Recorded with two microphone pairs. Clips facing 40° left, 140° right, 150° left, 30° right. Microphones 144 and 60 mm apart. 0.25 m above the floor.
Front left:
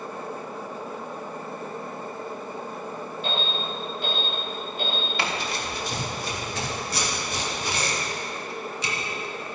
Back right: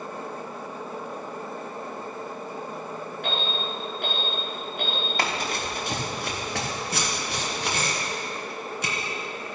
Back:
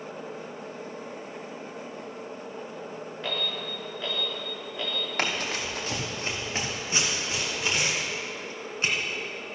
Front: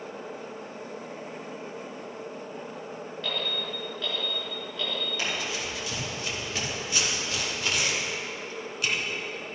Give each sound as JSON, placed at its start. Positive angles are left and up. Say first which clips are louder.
{"t": 3.2, "sound": "an alarm", "louder": "even, even", "azimuth_deg": -145, "distance_m": 4.0}
{"t": 5.2, "sound": "running footsteps", "louder": "back right 3 dB, back 5 dB", "azimuth_deg": 180, "distance_m": 2.5}
{"t": 6.9, "sound": "tape being pulled", "louder": "even, back 2 dB", "azimuth_deg": -155, "distance_m": 2.5}